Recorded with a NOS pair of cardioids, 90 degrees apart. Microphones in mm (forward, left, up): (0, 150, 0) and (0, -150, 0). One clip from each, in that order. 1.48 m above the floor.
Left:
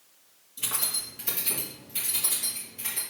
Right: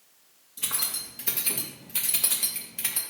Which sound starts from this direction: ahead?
Keys jangling, at 0.6 s.